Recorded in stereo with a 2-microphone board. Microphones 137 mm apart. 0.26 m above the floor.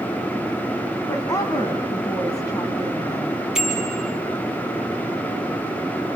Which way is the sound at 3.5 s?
5° right (ahead or behind).